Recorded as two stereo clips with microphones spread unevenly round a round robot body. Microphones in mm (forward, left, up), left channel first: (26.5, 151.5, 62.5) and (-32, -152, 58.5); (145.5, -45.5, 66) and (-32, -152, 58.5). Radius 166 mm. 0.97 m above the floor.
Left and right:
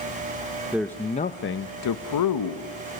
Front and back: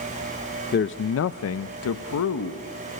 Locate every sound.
0.7 s a man speaking: 15° right, 0.7 m; by 2.7 s 60° left, 1.1 m